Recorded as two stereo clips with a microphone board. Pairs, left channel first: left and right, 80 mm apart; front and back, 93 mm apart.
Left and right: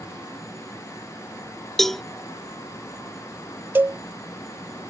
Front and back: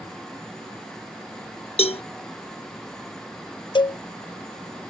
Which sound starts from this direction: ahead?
A cowbell, at 1.8 s.